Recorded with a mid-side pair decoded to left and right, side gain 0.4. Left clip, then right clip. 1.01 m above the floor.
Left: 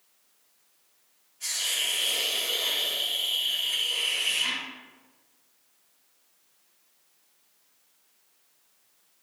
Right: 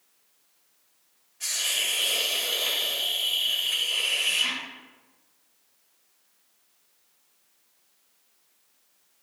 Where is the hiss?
60° right, 3.5 m.